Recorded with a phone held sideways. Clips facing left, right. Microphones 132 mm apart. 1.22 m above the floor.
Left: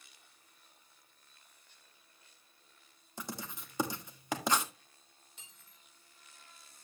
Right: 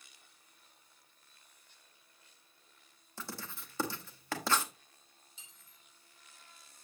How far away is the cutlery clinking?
About 2.5 m.